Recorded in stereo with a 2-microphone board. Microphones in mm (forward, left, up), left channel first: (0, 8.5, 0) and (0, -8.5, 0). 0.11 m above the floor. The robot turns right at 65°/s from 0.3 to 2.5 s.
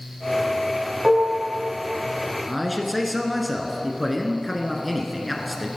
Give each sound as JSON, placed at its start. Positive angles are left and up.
{"t": 1.0, "sound": "dishes clattering", "side_deg": -35, "distance_m": 3.5}
{"t": 2.5, "sound": "a man speaking", "side_deg": 0, "distance_m": 1.5}